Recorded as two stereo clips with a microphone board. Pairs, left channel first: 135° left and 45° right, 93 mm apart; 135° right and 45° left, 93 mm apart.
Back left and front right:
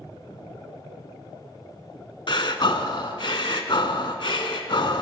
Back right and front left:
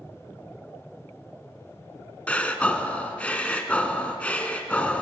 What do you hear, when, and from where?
2.3 s breathing: 150° left, 0.6 m